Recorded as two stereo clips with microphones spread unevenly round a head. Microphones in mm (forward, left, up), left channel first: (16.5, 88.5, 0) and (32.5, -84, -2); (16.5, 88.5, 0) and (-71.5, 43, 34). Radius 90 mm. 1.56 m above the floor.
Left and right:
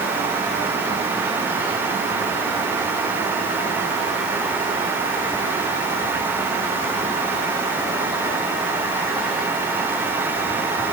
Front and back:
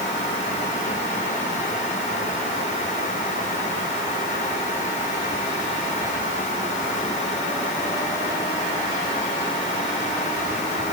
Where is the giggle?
I don't hear a giggle.